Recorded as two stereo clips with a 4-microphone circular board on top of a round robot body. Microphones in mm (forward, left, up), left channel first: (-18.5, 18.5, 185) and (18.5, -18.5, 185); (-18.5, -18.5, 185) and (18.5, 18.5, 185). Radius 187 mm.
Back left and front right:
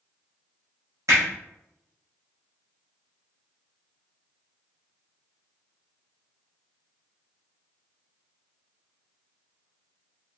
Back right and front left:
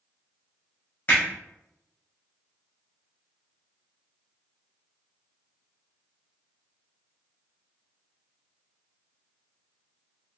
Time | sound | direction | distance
1.1 | hammering | 75° right | 1.1 m